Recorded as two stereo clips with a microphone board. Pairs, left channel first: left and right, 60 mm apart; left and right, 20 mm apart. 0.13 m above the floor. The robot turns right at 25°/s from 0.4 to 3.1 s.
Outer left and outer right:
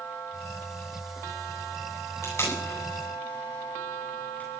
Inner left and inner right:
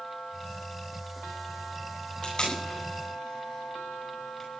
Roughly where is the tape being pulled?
Left.